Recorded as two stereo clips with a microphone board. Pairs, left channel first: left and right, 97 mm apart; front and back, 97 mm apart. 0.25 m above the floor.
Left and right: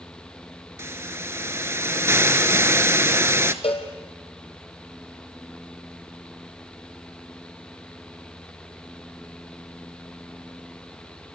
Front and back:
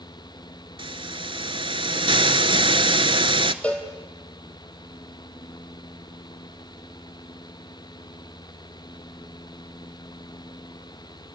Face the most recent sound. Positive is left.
turn(degrees=75)